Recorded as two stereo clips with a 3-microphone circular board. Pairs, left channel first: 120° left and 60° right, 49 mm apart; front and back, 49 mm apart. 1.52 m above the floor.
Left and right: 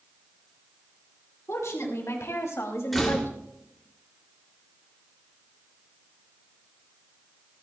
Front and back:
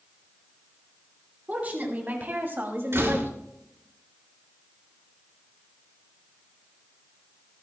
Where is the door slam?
155° right, 2.5 m.